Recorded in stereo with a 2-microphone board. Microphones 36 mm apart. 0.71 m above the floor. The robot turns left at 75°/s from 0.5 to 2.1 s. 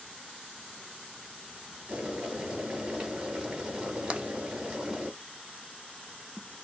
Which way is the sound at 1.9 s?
45° right (ahead or behind).